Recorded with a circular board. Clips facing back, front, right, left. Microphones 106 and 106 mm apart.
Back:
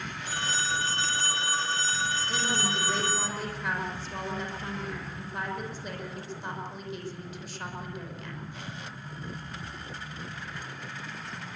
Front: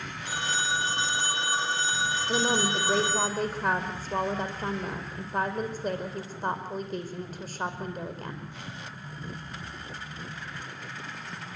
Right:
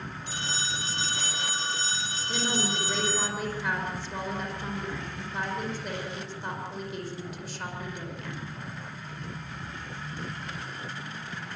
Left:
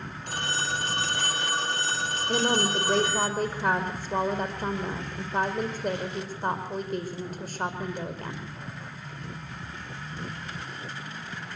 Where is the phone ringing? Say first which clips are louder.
Front 2 dB, left 5 dB; 70° left, 1.7 m.